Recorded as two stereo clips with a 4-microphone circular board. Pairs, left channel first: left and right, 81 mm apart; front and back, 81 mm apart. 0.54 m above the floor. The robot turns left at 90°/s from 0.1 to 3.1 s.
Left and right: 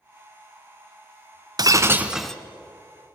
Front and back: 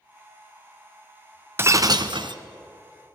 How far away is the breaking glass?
About 1.0 m.